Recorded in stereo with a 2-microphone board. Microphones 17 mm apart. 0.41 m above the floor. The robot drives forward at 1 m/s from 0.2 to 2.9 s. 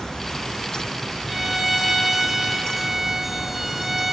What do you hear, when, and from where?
1.3 s a violin: 5° right (ahead or behind), 3 m; by 4.1 s 10° right (ahead or behind), 1.5 m